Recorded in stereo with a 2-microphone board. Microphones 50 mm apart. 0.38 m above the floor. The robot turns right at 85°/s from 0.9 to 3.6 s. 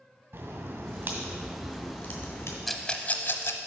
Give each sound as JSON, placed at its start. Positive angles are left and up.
{"t": 0.3, "sound": "a crack", "azimuth_deg": -50, "distance_m": 1.9}
{"t": 2.7, "sound": "a rattle", "side_deg": 0, "distance_m": 0.7}